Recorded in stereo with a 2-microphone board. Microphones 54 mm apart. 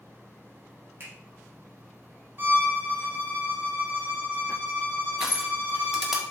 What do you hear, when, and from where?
1.0 s a finger snap: 45° right (ahead or behind), 3 m
2.4 s a violin: 40° right (ahead or behind), 1.6 m
5.2 s crushing: 10° right (ahead or behind), 1.3 m